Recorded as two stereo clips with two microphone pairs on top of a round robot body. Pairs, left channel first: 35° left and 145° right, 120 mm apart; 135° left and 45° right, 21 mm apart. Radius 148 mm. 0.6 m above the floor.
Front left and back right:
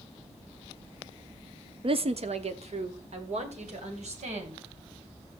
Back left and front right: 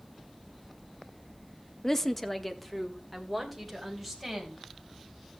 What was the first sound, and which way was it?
A woman speaking, 160° right.